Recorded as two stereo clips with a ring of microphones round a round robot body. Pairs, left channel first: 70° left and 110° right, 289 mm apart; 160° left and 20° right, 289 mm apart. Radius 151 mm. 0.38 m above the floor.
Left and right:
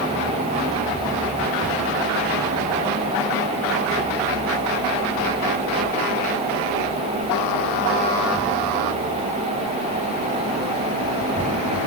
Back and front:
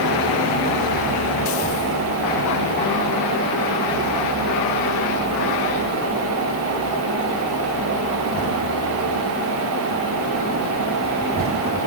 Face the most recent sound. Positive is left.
No sound to turn to.